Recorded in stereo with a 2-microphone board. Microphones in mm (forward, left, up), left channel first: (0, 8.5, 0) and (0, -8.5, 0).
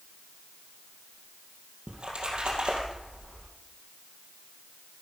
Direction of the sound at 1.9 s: 60° right (ahead or behind).